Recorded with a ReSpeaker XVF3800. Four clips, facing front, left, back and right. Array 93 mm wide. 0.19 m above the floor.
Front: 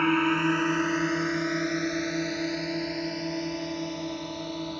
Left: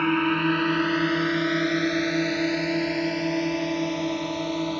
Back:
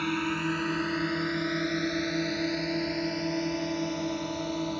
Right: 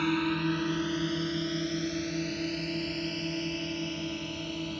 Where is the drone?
45° left; by 4.8 s 95° left.